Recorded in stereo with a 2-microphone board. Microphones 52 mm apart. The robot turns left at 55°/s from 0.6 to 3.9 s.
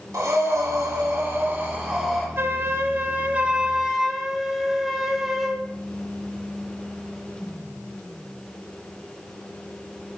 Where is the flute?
90° right, 0.8 m; by 5.7 s 175° right, 0.8 m.